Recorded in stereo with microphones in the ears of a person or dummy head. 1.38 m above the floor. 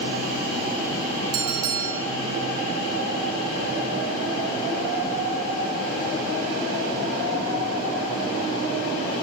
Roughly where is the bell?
Right.